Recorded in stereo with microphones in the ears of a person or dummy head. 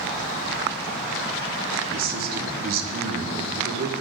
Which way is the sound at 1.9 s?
45° right (ahead or behind).